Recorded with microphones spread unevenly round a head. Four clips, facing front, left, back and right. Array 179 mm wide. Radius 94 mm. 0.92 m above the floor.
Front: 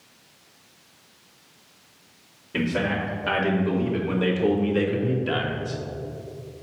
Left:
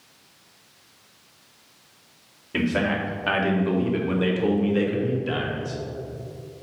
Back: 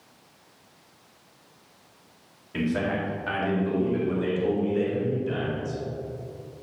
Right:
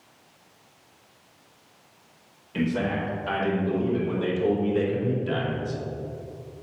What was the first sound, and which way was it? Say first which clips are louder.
A man speaking: left 2 dB, front 1 dB; 70° left.